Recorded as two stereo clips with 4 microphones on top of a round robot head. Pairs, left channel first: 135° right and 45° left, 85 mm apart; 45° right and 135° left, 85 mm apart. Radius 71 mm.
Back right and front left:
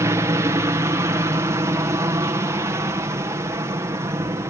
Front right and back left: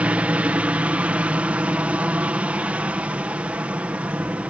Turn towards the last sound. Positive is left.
turn(degrees=70)